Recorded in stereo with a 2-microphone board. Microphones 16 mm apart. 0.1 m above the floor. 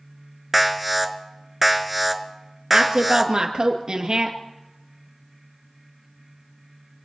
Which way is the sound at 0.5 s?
5° right (ahead or behind).